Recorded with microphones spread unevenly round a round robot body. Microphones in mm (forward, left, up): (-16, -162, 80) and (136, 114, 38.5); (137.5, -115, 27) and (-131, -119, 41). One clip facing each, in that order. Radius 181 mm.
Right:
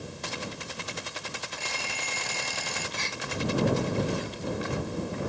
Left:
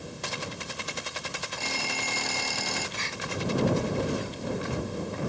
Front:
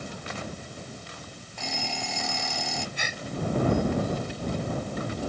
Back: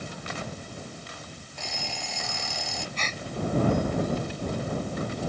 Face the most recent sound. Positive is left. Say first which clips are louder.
# even, back 1 dB
turn(degrees=-80)